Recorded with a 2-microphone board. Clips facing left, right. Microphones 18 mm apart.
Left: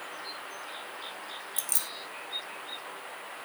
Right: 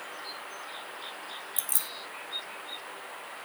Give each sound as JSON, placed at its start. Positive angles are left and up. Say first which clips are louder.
{"t": 1.6, "sound": "keys jangling", "louder": "left 1 dB", "side_deg": 35, "distance_m": 0.8}